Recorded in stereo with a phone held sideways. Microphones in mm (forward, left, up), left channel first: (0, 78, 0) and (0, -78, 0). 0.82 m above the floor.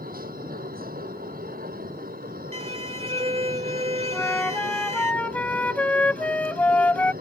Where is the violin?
40° right (ahead or behind).